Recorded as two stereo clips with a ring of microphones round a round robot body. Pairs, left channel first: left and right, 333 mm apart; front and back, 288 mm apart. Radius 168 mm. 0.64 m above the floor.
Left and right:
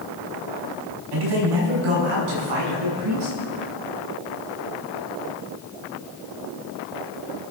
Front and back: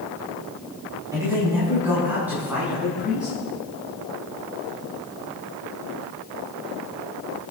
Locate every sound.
1.1 s a man speaking: 100° right, 5 m; by 3.3 s 90° right, 7.5 m